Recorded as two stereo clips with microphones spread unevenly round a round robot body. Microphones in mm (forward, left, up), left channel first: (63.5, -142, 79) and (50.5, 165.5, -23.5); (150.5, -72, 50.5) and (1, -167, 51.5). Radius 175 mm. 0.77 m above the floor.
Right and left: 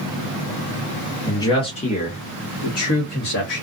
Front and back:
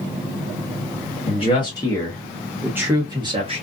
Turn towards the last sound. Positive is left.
turn(degrees=-110)